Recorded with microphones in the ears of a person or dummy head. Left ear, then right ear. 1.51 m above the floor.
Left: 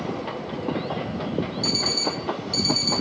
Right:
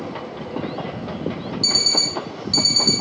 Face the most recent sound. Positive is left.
turn(degrees=-10)  # may be behind; listen again after turning